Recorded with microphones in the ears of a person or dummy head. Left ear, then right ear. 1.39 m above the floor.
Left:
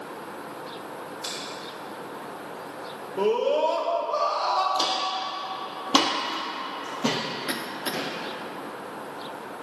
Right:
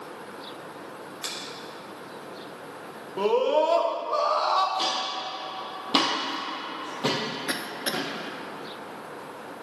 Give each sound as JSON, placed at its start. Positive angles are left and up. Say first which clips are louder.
{"t": 1.2, "sound": "a finger snap", "louder": "even", "side_deg": -35, "distance_m": 2.0}
{"t": 3.2, "sound": "a scream", "louder": "right 1 dB", "side_deg": -30, "distance_m": 1.1}
{"t": 4.8, "sound": "footsteps", "louder": "left 2 dB", "side_deg": 25, "distance_m": 2.5}
{"t": 7.5, "sound": "a cough", "louder": "even", "side_deg": -5, "distance_m": 0.6}